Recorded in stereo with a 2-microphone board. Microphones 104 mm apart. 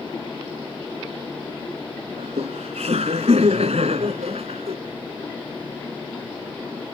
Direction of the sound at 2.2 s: 85° right.